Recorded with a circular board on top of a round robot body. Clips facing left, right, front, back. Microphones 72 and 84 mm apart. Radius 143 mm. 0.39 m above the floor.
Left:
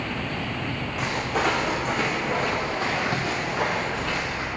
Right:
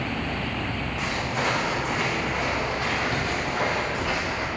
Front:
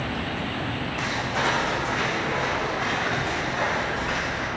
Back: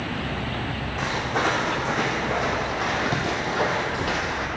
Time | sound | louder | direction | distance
1.0 | footsteps | left 3 dB, back 3 dB | 130° left | 1.9 m